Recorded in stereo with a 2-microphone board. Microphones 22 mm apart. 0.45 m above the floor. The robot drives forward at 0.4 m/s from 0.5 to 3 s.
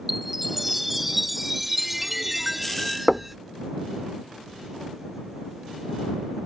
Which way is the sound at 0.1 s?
5° right (ahead or behind).